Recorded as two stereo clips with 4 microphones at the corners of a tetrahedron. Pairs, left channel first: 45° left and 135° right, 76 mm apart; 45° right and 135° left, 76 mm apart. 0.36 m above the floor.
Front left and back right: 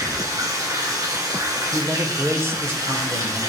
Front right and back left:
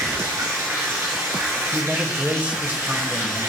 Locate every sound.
0.0 s running water: 175° right, 2.5 m
1.7 s a man speaking: 165° right, 0.9 m